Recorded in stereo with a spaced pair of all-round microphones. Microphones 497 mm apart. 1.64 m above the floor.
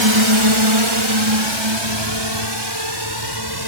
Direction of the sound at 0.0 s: 60° right (ahead or behind).